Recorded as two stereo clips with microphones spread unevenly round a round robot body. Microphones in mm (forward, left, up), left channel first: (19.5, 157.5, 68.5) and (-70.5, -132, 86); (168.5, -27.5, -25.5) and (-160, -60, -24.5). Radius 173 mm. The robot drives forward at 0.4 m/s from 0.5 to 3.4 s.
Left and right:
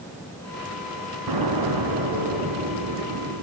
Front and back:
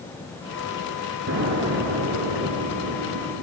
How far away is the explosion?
About 4.5 m.